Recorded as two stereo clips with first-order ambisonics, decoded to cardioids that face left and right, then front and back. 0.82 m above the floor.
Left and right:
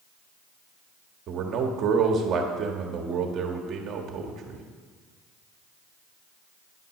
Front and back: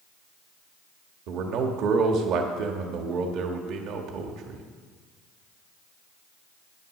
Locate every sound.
1.3 s a man speaking: 145° right, 1.3 m